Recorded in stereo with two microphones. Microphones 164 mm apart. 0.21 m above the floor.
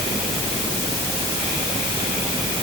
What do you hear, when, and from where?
Only background noise.